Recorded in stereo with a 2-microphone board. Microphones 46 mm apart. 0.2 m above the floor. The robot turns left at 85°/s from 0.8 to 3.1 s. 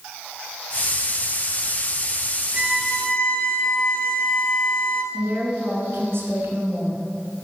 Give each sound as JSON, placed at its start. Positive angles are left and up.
{"t": 2.5, "sound": "a violin", "azimuth_deg": -160, "distance_m": 0.9}
{"t": 5.1, "sound": "a woman speaking", "side_deg": -60, "distance_m": 2.5}